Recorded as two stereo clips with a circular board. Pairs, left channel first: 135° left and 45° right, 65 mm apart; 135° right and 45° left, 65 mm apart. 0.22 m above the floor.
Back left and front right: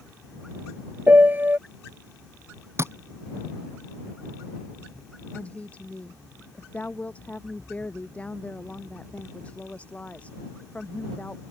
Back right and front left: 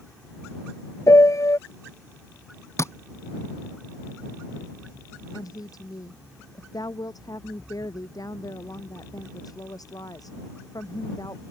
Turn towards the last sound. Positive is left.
turn(degrees=-155)